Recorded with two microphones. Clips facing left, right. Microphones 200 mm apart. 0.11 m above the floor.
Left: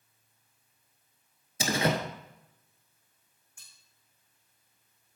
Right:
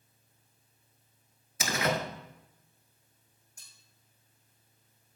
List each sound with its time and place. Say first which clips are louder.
1.6 s a door slam: left 3 dB; 30° left (ahead or behind), 1.1 m
3.6 s cutlery clinking: even; 40° right (ahead or behind), 3.5 m